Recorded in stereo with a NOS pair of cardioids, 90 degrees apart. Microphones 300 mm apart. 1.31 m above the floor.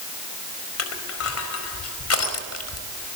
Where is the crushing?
50° left, 4.5 m.